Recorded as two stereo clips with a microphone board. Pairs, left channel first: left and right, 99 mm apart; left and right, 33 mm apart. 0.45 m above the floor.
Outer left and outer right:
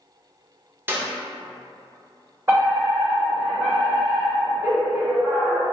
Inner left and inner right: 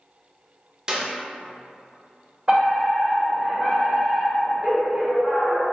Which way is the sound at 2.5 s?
30° right (ahead or behind).